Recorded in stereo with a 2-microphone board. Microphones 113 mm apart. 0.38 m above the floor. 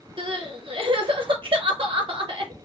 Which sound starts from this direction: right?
Crying, at 0.2 s.